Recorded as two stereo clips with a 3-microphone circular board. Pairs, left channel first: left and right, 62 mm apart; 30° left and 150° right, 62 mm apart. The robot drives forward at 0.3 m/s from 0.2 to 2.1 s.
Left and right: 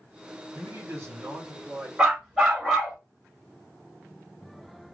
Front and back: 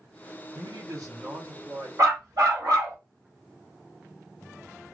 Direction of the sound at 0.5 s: 135° right.